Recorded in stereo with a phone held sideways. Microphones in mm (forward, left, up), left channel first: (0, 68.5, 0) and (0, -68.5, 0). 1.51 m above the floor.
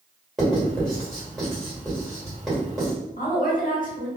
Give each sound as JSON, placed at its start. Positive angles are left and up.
{"t": 0.4, "sound": "writing", "side_deg": 5, "distance_m": 1.6}
{"t": 3.2, "sound": "a woman speaking", "side_deg": 75, "distance_m": 1.0}